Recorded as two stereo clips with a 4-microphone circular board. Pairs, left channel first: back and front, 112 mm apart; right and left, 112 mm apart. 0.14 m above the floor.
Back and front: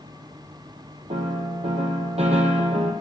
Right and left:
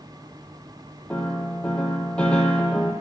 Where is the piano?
10° right, 1.2 m.